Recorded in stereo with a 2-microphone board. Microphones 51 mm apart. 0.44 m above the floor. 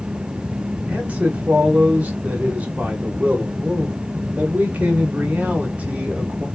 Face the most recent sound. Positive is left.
turn(degrees=-30)  # may be behind; listen again after turning